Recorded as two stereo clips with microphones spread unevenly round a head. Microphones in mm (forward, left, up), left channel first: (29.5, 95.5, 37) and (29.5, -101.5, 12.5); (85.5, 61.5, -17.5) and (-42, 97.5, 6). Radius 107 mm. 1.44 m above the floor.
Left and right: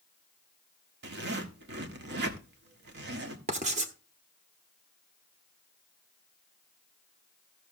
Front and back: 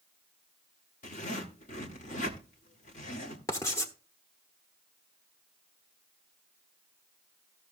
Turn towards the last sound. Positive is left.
turn(degrees=-80)